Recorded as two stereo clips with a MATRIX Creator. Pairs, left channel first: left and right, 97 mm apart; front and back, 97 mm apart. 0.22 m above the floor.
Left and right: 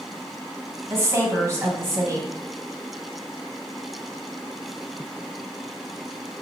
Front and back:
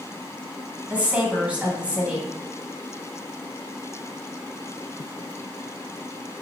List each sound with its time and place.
0.9 s a woman speaking: 115° right, 1.3 m